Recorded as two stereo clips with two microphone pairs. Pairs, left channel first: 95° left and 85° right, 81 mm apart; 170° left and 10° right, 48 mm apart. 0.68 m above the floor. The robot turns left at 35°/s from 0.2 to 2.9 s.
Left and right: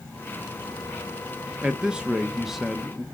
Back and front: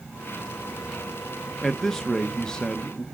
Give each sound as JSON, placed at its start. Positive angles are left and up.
{"t": 1.6, "sound": "a man speaking", "azimuth_deg": -120, "distance_m": 0.5}